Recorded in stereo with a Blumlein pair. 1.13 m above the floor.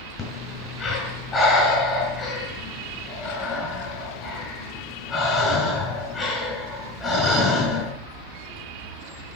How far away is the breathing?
About 5.5 m.